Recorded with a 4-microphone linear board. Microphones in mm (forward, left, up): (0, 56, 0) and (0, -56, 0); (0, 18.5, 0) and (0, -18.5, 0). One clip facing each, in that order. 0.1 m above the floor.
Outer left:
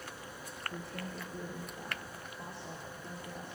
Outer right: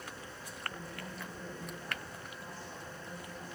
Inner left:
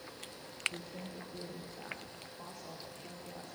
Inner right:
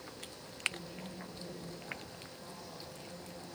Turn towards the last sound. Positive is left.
turn(degrees=60)  # may be behind; listen again after turning